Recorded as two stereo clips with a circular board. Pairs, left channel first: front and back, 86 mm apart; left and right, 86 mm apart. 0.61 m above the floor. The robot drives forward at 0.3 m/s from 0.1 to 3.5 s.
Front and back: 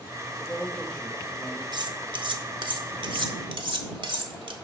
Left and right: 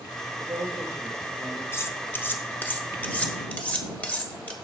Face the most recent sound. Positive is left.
turn(degrees=165)